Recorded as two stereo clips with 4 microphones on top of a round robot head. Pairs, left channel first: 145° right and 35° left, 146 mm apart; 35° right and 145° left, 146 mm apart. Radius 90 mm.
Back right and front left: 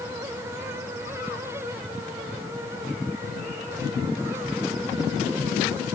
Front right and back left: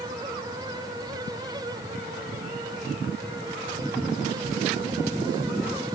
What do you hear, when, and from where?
Only background noise.